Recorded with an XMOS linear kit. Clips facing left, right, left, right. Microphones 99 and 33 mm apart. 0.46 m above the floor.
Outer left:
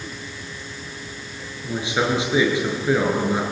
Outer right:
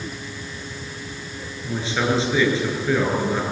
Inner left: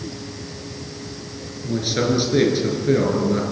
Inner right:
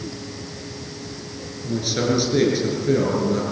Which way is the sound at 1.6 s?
15° left (ahead or behind).